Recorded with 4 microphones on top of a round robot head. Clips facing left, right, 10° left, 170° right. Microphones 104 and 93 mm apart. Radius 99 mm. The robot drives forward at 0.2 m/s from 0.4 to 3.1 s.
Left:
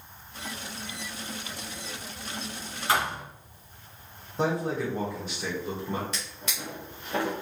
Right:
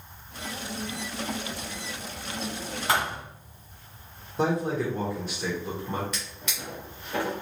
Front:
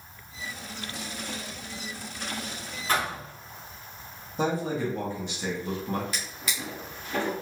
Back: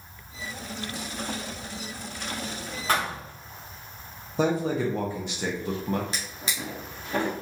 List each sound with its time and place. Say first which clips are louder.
2.9 s a thud: even, back 1 dB; 120° right, 1.1 m; by 3.2 s 125° right, 1.1 m
4.4 s a man speaking: right 2 dB, back 3 dB; straight behind, 0.8 m
6.1 s a drawer: even, back 1 dB; 145° left, 0.6 m